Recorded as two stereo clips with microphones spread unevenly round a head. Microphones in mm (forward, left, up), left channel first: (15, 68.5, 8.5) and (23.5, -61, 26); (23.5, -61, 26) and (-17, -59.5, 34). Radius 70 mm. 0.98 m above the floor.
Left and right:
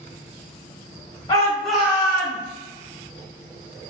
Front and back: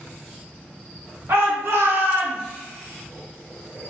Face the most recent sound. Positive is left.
turn(degrees=-140)